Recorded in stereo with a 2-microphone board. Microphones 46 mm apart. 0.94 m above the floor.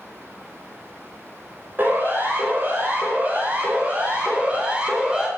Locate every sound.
1.8 s a siren: 45° right (ahead or behind), 5.5 m; by 5.3 s 20° right (ahead or behind), 4 m